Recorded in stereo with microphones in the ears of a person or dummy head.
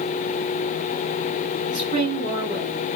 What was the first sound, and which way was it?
A woman speaking, 35° left (ahead or behind).